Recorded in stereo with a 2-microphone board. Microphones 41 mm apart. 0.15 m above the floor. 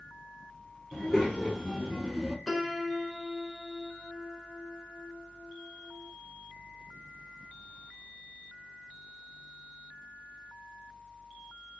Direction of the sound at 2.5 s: 10° left (ahead or behind).